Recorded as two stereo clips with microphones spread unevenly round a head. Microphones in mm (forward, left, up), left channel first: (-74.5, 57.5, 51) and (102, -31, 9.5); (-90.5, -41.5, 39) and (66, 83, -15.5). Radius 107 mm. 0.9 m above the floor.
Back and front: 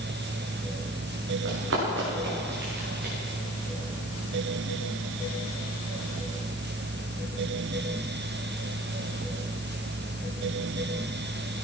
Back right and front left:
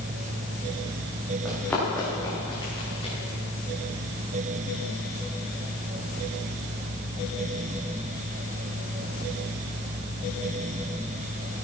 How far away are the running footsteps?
About 6 m.